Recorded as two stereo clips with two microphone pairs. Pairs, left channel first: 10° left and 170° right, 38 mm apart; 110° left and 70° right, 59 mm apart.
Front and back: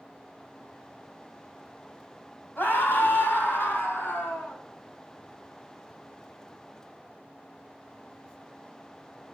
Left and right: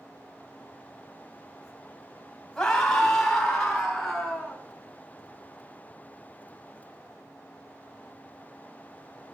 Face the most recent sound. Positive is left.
turn(degrees=20)